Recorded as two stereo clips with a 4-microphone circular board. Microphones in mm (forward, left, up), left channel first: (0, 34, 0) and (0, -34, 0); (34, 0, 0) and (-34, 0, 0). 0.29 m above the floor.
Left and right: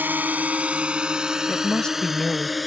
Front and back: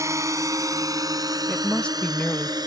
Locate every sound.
0.0 s a drone: 150° right; by 2.7 s straight behind
1.5 s a woman speaking: 40° left